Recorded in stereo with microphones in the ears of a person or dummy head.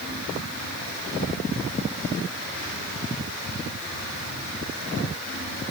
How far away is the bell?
I don't hear a bell.